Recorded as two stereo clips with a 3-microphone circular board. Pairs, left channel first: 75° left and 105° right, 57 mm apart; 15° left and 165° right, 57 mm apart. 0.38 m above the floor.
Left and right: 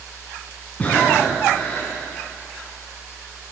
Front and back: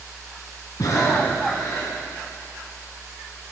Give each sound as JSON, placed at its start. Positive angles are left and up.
{"t": 0.8, "sound": "breathing", "azimuth_deg": 10, "distance_m": 3.0}